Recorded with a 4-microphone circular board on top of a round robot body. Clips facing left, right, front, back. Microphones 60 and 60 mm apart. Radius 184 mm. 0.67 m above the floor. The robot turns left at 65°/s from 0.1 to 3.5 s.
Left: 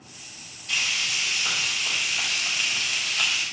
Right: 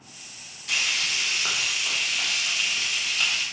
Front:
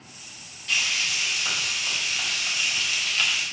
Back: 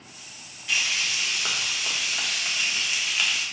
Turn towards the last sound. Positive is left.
turn(degrees=75)